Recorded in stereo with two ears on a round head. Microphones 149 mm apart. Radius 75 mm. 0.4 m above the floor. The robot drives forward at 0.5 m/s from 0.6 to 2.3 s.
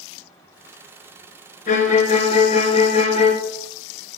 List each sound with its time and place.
1.7 s a violin: 50° left (ahead or behind), 1.0 m; by 3.4 s 40° left (ahead or behind), 1.3 m